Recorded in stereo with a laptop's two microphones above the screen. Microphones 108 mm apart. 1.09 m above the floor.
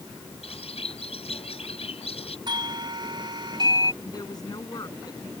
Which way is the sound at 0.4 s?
85° left.